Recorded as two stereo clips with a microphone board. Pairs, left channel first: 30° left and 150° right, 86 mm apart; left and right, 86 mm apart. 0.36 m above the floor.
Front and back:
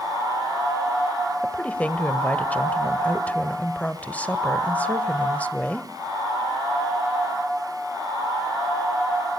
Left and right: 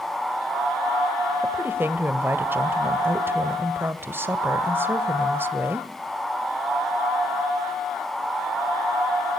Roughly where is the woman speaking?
Ahead right.